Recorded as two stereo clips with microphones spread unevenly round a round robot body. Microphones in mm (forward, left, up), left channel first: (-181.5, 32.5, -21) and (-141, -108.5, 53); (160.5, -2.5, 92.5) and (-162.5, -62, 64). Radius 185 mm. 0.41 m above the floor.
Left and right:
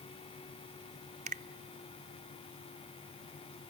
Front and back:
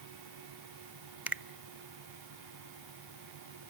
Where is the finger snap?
105° right, 0.8 m.